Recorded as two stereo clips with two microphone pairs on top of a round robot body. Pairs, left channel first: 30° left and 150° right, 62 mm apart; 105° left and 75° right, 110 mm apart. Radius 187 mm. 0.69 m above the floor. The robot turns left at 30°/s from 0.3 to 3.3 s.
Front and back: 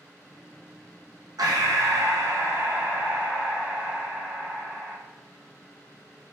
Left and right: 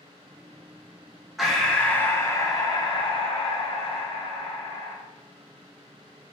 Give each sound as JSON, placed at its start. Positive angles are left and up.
{"t": 1.4, "sound": "breathing", "azimuth_deg": -165, "distance_m": 0.8}